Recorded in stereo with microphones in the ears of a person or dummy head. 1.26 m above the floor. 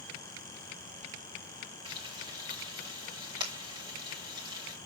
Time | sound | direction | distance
1.9 | frying | 25° right (ahead or behind) | 2.5 m